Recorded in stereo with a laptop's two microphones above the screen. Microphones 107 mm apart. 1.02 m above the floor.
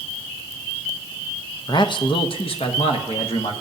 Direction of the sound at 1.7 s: 40° left (ahead or behind).